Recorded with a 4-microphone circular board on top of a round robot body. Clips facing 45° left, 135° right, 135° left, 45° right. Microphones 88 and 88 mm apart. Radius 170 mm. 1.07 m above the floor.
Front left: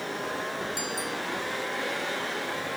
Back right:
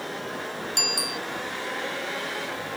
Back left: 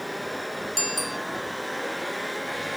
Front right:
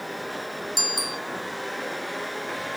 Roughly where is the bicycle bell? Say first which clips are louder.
Back right 1 dB, back left 1 dB; behind right.